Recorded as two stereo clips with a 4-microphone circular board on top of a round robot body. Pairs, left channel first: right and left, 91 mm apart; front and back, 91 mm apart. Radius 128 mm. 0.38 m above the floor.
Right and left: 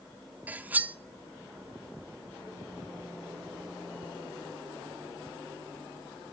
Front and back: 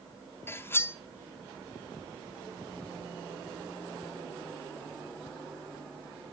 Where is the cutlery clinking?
35° left, 0.6 m.